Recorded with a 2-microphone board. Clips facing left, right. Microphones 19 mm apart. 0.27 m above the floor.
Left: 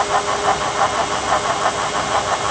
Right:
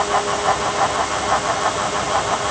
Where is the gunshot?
I don't hear a gunshot.